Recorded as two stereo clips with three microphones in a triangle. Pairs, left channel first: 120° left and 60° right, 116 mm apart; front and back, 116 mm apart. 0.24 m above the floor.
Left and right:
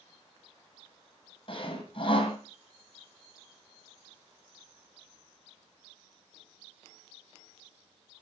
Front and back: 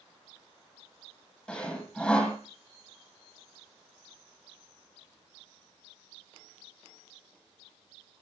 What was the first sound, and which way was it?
Sawing, 80° left.